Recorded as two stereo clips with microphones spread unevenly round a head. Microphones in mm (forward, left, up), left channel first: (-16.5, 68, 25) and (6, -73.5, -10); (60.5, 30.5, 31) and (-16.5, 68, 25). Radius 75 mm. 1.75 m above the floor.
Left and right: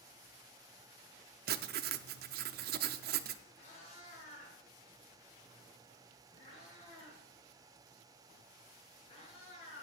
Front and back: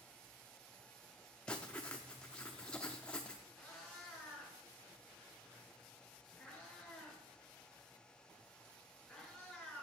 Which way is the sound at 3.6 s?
55° left.